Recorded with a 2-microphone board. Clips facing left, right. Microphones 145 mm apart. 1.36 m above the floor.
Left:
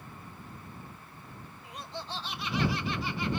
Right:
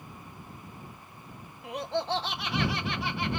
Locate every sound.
1.6 s laughter: 70° right (ahead or behind)